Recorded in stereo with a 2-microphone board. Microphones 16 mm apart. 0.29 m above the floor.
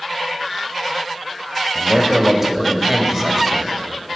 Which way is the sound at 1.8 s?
30° right (ahead or behind).